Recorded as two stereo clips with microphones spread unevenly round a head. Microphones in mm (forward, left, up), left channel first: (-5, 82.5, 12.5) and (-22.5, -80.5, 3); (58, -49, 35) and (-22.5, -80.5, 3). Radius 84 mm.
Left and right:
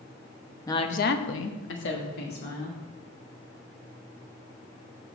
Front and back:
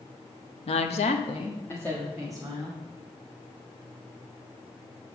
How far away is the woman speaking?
About 1.0 m.